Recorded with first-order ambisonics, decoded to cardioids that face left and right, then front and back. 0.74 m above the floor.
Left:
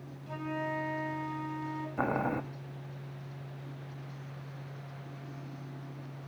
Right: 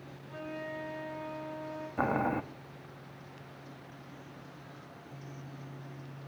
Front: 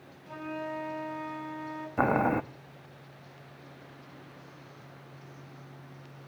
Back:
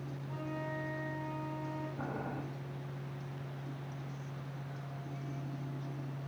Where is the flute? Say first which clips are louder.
Left 5 dB, front 5 dB; 60° left, 4.5 m.